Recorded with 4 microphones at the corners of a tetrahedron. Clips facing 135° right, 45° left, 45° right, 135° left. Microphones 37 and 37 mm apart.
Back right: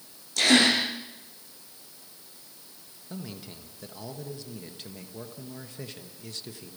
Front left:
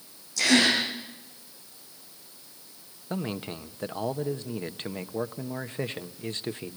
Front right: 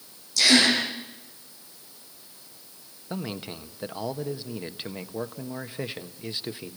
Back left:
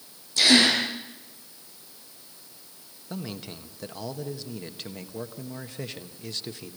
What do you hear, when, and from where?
0.4 s a gasp: 165° right, 9 m
3.1 s a man speaking: 25° left, 1.2 m